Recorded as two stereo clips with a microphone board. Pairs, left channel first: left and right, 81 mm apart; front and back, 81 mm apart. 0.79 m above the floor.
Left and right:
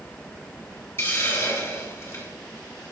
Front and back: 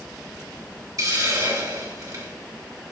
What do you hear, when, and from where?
1.0 s a hiss: 145° left, 2.5 m